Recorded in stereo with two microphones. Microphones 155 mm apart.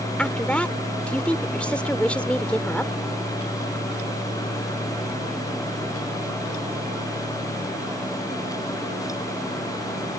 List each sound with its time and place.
0.2 s a woman speaking: 10° left (ahead or behind)